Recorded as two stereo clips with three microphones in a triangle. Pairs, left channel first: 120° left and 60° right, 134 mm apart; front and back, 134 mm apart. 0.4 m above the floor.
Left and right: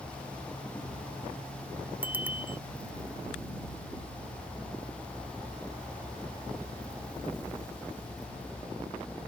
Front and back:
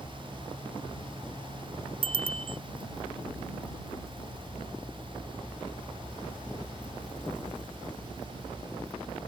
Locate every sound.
2.0 s a bicycle bell: 135° right